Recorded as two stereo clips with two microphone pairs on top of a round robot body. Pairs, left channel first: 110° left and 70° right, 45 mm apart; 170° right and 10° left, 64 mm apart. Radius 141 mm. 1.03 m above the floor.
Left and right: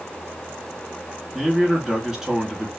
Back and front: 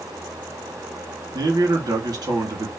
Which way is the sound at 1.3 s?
15° left.